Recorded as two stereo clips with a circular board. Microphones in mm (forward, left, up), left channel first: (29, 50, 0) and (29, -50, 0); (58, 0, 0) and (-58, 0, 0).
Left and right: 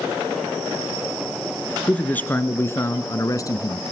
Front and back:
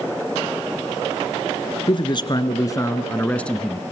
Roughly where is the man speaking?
Ahead.